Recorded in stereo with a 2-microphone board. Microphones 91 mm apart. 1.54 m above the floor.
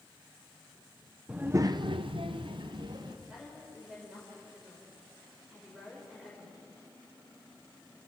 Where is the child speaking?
10° right (ahead or behind), 0.6 m; by 3.2 s 55° right (ahead or behind), 1.6 m.